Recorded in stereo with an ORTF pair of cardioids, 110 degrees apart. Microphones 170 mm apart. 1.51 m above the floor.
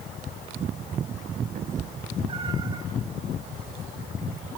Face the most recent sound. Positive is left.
turn(degrees=-25)